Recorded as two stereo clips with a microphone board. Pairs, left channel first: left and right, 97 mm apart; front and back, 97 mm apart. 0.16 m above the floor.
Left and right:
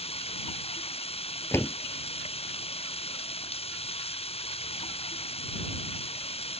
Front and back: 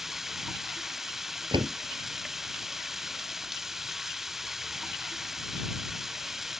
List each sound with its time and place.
0.0 s running water: 95° left
1.5 s a door slam: 155° left